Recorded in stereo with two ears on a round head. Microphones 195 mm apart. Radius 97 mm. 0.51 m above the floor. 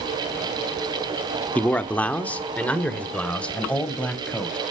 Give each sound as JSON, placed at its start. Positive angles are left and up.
{"t": 1.6, "sound": "a man speaking", "side_deg": 5, "distance_m": 0.8}